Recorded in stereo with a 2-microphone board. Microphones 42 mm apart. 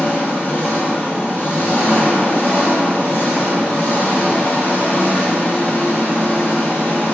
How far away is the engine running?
About 1.1 m.